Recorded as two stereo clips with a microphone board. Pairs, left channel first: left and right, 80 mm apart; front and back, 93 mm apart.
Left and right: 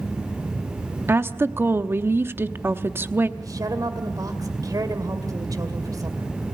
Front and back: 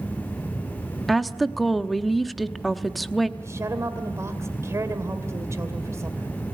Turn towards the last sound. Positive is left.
turn(degrees=-125)